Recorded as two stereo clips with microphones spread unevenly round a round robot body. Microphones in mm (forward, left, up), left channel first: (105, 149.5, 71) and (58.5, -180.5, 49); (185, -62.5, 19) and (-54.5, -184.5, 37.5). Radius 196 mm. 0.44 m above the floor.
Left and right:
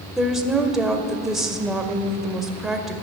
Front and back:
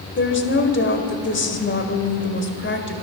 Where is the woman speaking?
10° right, 1.6 m.